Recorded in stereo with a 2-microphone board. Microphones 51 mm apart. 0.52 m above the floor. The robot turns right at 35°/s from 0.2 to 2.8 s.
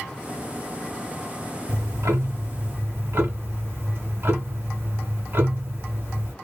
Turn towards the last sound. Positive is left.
turn(degrees=-50)